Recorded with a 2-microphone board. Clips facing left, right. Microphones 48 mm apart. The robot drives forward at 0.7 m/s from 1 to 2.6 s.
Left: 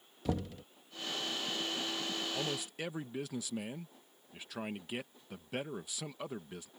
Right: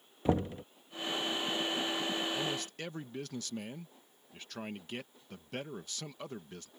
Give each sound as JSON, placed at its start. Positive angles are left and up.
{"t": 0.2, "sound": "knocking", "side_deg": -30}
{"t": 2.3, "sound": "a man speaking", "side_deg": 10}